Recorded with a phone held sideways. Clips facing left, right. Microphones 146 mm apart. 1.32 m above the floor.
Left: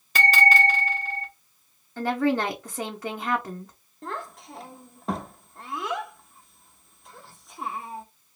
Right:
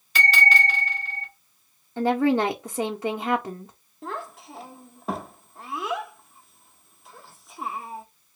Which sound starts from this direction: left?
A bell, at 0.1 s.